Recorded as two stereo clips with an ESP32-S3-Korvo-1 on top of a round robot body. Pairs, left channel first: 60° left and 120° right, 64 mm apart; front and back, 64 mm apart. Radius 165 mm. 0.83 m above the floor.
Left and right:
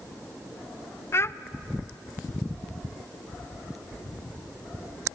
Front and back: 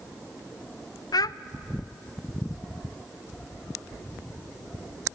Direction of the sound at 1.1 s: 10° left.